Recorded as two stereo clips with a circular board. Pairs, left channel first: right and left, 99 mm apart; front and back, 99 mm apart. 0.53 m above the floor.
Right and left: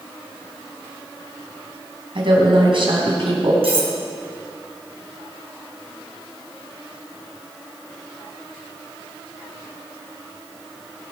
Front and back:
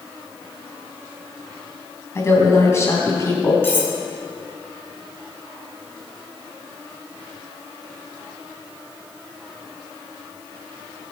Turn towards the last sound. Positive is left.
turn(degrees=70)